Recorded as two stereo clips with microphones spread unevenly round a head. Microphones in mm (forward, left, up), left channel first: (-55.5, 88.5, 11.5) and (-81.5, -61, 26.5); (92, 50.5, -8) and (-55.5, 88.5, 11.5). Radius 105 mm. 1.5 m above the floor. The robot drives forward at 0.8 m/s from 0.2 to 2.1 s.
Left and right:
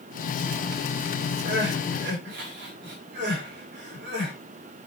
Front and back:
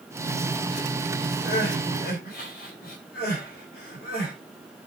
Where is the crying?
65° right, 5 m; by 4.3 s 70° right, 5 m.